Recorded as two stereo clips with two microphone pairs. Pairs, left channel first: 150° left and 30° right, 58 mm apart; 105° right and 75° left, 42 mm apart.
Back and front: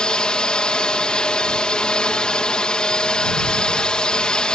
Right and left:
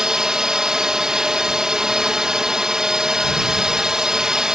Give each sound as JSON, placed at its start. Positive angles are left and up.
{"t": 0.0, "sound": "a drone", "azimuth_deg": 115}